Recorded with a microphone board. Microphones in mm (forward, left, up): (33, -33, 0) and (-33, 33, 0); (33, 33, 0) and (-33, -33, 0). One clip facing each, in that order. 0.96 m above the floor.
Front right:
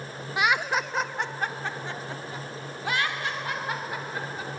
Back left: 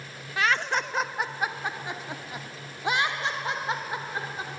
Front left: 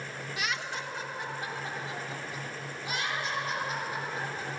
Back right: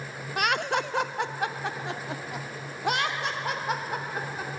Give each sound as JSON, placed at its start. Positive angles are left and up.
{"t": 0.4, "sound": "laughter", "azimuth_deg": -115, "distance_m": 0.8}